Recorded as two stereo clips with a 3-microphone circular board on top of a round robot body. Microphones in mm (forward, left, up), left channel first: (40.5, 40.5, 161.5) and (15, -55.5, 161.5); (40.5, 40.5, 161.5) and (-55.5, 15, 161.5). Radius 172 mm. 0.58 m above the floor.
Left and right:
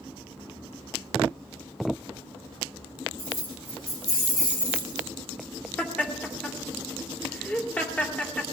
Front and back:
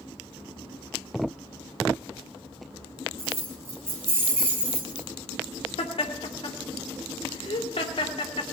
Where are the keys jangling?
135° left, 5.5 m; by 5.1 s 115° left, 3.5 m.